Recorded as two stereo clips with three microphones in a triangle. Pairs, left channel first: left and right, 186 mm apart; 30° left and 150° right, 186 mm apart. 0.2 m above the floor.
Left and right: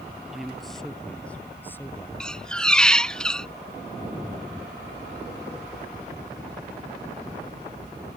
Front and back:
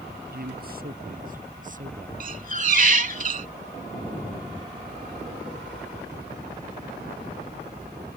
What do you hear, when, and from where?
0.3 s a man speaking: straight behind; by 2.1 s 165° left
2.2 s a squeak: 175° left